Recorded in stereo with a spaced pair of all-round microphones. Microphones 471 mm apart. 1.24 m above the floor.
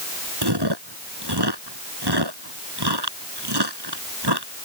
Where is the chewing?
55° right (ahead or behind).